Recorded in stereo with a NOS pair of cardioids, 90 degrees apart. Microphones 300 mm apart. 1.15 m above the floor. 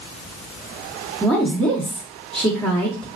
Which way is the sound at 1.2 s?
Straight ahead.